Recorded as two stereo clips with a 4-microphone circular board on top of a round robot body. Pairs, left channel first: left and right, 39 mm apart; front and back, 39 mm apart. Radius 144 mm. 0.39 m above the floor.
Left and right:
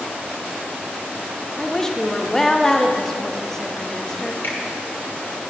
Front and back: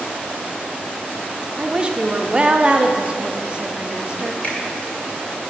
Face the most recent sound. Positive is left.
turn(degrees=50)